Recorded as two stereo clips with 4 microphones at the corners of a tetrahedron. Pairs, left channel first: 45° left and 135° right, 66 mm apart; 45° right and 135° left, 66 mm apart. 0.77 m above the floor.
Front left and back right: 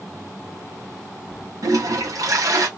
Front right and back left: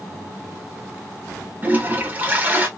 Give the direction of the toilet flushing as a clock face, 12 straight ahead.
5 o'clock.